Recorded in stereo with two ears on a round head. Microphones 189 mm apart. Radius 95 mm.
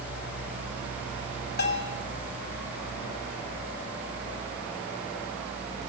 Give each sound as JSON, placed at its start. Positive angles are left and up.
{"t": 1.6, "sound": "a bell", "side_deg": 50, "distance_m": 2.5}